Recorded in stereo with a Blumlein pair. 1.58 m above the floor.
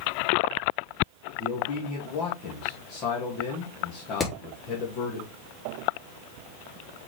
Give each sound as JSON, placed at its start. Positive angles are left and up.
{"t": 1.4, "sound": "a man speaking", "azimuth_deg": 40, "distance_m": 2.5}
{"t": 4.2, "sound": "hammering", "azimuth_deg": 20, "distance_m": 2.5}